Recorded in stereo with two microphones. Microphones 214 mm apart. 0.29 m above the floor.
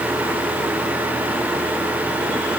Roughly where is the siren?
No siren in this recording.